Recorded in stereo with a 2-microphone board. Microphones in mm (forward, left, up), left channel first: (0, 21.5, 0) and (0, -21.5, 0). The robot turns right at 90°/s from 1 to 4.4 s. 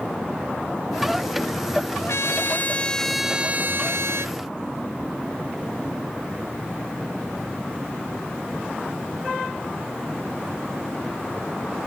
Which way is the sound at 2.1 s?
85° left.